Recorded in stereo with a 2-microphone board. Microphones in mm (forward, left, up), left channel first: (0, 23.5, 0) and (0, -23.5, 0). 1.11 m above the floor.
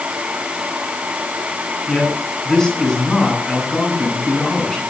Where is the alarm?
I don't hear an alarm.